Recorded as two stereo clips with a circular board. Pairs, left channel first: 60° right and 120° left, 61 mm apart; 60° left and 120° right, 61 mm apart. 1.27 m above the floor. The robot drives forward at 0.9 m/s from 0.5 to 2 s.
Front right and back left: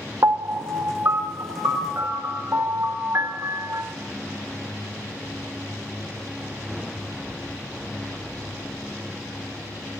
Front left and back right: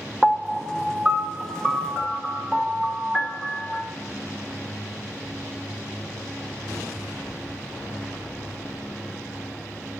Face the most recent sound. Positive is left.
turn(degrees=170)